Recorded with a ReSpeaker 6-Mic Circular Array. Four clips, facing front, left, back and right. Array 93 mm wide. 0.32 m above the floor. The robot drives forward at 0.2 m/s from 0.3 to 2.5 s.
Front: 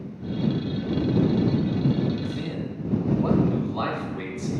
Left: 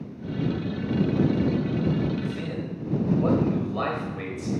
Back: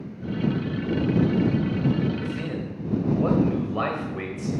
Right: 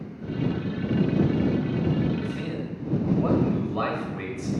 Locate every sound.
2.2 s a man speaking: 175° right, 1.4 m